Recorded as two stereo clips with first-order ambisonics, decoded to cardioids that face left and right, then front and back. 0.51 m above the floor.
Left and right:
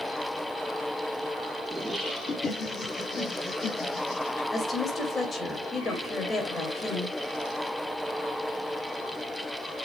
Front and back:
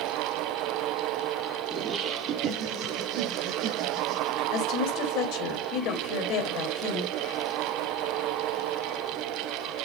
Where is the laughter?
150° right, 0.7 m; by 4.4 s 130° left, 2.5 m.